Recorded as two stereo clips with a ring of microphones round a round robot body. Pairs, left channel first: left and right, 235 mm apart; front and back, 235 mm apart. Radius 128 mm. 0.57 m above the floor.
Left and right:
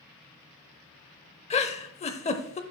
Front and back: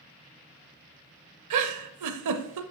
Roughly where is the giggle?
Behind left.